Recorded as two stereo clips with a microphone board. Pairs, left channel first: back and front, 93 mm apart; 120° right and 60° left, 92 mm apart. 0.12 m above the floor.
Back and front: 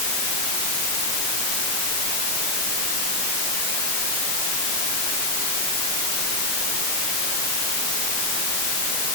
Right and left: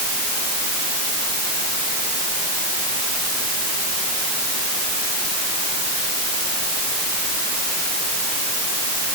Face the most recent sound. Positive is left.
No sound to turn to.